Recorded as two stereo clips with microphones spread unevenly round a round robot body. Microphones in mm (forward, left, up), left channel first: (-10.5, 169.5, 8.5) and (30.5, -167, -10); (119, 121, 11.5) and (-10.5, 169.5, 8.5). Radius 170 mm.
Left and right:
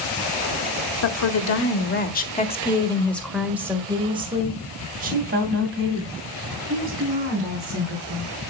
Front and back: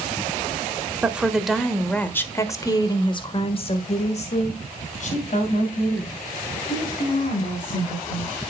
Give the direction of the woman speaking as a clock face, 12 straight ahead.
9 o'clock.